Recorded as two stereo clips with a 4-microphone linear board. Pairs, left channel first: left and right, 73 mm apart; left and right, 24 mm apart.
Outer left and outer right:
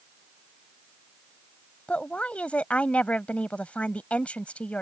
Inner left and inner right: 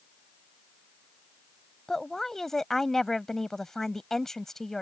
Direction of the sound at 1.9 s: 20° left (ahead or behind).